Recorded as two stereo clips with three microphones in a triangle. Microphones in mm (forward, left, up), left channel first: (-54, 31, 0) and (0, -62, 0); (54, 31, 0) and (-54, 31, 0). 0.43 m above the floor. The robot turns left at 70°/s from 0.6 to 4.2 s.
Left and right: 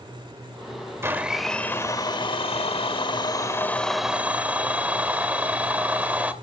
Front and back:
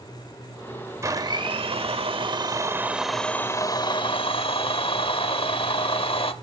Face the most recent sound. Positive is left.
turn(degrees=15)